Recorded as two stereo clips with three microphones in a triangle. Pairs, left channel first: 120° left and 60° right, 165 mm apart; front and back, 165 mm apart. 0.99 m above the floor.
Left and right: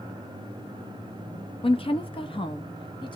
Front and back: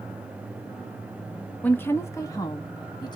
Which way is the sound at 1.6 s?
75° left.